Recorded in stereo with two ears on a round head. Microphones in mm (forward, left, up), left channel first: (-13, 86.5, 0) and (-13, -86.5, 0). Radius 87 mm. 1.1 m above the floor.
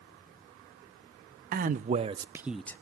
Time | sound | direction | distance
1.5 | a man speaking | 50° right (ahead or behind) | 0.7 m